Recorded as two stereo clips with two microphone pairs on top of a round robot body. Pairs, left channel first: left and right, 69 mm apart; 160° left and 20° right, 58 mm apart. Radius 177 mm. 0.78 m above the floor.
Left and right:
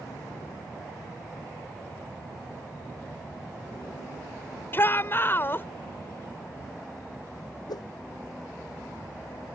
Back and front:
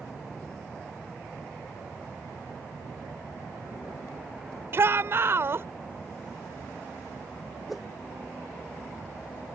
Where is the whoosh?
65° left.